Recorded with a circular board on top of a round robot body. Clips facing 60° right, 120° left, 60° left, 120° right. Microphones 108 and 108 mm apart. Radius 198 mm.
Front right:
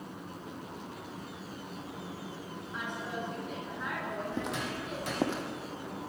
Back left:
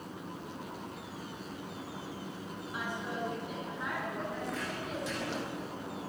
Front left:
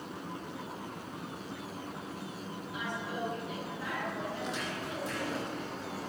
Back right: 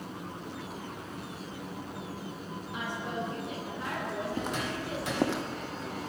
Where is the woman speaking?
160° right, 9 m; by 5.3 s 145° right, 9.5 m.